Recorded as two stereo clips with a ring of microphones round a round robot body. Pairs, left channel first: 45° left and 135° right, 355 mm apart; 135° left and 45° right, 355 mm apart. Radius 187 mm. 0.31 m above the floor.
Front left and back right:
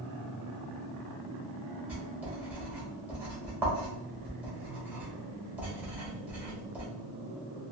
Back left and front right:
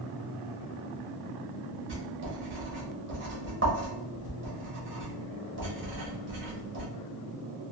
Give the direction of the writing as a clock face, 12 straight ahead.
2 o'clock.